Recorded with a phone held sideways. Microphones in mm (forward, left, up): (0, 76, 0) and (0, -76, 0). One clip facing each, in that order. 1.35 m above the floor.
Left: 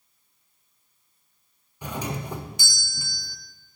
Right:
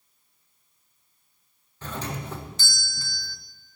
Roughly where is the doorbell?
Centre.